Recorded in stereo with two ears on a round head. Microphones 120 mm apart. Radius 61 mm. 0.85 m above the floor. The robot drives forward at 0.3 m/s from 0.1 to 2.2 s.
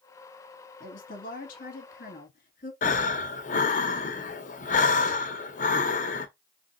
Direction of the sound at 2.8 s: 60° left (ahead or behind).